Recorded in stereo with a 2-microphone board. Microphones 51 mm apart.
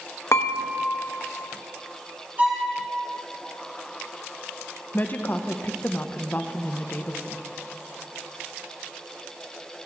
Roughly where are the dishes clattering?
Left.